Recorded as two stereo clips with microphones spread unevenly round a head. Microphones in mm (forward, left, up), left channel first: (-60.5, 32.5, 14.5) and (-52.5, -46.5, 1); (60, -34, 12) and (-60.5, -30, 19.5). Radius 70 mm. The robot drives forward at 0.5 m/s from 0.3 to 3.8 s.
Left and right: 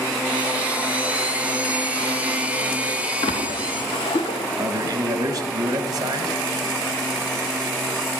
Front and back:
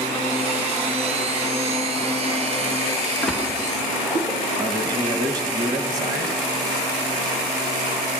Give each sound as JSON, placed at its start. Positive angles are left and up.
{"t": 3.2, "sound": "a splash", "azimuth_deg": 85, "distance_m": 1.0}
{"t": 4.6, "sound": "a man speaking", "azimuth_deg": -125, "distance_m": 1.4}